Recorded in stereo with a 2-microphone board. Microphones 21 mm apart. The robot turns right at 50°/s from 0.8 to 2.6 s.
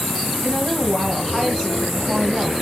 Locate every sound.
0.4 s a woman speaking: 5° left (ahead or behind), 1.8 m; by 2.5 s 25° right (ahead or behind), 1.8 m